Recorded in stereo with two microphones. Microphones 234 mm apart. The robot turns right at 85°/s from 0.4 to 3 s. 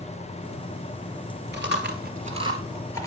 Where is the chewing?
45° right (ahead or behind), 1.8 m; by 3.1 s 15° left (ahead or behind), 1.8 m.